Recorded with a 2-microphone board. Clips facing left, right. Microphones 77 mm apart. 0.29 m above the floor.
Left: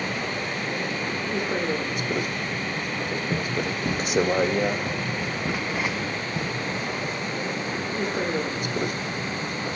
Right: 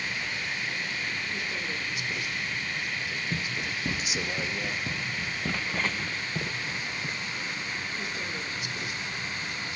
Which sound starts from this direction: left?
A vehicle, at 0.0 s.